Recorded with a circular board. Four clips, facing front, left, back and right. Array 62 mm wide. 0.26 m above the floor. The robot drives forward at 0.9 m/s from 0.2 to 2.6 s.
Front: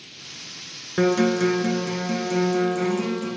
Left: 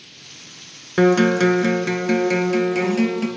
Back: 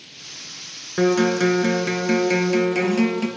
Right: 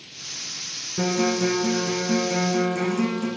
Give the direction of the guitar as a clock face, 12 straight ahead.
9 o'clock.